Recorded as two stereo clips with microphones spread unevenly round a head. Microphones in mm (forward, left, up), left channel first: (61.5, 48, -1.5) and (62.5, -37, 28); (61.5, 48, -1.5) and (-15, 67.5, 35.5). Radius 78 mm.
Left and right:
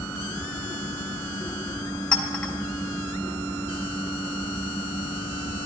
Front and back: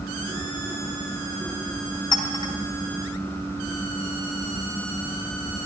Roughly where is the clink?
Ahead.